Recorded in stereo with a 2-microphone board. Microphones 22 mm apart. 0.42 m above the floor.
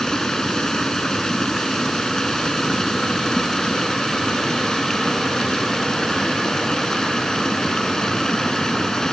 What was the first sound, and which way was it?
Running water, 25° left (ahead or behind).